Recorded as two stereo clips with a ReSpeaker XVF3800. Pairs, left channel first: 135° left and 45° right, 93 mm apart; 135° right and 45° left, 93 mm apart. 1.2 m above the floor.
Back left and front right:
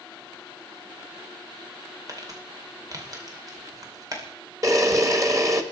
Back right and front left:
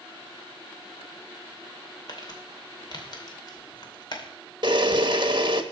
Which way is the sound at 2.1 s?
95° right.